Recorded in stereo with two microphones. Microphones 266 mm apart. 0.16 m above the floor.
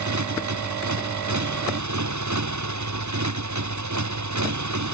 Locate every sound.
0.0 s a motorcycle: 85° right